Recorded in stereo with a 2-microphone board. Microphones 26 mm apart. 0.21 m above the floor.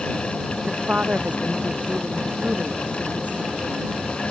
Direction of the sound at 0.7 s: 55° right (ahead or behind).